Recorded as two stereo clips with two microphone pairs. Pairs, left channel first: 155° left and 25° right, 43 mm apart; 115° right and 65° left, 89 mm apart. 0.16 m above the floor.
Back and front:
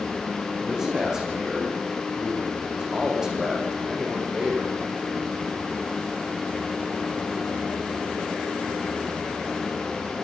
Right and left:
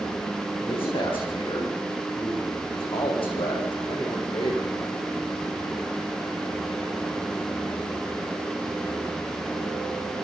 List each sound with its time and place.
0.6 s a man speaking: 105° right, 9 m; by 4.7 s 100° right, 6.5 m